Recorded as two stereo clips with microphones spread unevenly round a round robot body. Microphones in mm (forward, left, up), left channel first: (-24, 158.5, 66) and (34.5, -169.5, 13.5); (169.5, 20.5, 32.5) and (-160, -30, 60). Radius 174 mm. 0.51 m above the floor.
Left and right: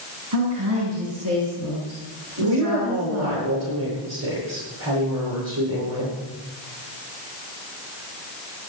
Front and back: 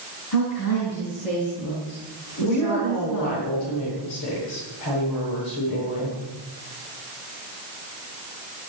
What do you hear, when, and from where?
0.3 s a woman speaking: 35° right, 6 m
2.4 s a woman speaking: 35° right, 10 m